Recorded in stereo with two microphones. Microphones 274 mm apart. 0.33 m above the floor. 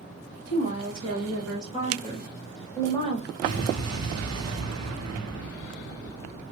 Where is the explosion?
65° right (ahead or behind), 0.7 m.